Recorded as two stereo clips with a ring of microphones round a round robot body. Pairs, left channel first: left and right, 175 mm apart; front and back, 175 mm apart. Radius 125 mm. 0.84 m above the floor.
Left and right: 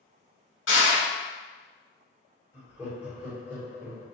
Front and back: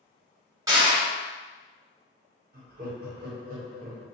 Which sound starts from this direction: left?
Crushing, at 0.7 s.